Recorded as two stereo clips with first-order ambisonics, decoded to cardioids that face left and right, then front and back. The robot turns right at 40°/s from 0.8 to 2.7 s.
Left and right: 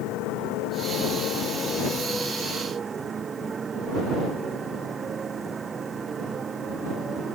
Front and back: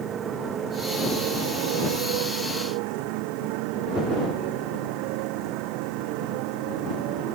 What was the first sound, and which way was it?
A motorcycle, 125° left.